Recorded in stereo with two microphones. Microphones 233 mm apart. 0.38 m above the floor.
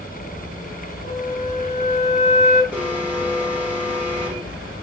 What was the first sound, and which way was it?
A flute, 30° left (ahead or behind).